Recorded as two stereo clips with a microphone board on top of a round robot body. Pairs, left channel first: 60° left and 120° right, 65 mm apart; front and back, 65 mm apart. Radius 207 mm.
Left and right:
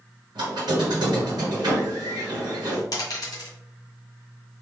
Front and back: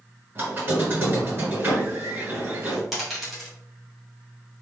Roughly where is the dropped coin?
Left.